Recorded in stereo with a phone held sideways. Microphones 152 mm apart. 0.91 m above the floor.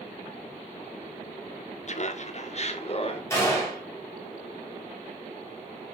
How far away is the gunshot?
About 4 m.